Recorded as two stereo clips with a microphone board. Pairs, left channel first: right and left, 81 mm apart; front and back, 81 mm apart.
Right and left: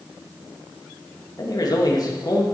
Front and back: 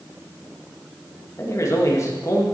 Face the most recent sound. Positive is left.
turn(degrees=-50)